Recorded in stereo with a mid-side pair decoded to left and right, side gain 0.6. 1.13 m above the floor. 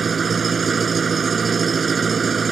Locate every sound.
0.0 s an engine running: 30° right